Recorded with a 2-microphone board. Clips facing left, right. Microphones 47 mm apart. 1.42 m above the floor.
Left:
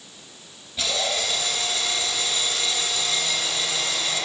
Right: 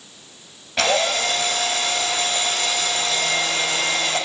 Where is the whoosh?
I don't hear a whoosh.